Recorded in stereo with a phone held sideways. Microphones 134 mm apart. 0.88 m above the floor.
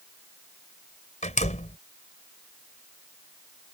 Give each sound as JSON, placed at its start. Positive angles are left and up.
{"t": 1.2, "sound": "a door slam", "side_deg": 65}